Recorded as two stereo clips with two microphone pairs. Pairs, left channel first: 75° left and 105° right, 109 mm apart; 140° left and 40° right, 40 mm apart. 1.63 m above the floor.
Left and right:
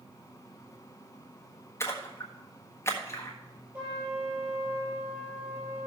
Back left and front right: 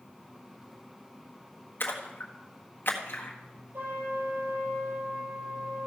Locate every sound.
1.8 s a splash: 140° left, 1.6 m
3.7 s a trumpet: 30° right, 6.5 m